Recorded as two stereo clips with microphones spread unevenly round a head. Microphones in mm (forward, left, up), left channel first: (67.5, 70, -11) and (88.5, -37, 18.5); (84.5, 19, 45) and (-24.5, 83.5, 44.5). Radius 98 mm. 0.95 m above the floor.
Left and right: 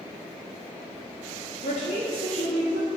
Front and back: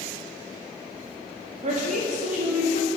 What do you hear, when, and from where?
1.6 s a woman speaking: 125° left, 1.6 m; by 2.9 s 150° left, 1.7 m